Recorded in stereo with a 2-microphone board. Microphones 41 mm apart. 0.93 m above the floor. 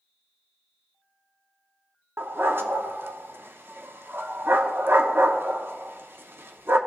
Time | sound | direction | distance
2.2 | a dog barking | 65° right (ahead or behind) | 0.7 m